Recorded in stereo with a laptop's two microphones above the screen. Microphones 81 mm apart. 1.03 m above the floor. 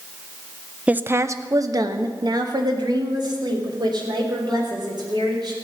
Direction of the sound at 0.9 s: 15° right (ahead or behind).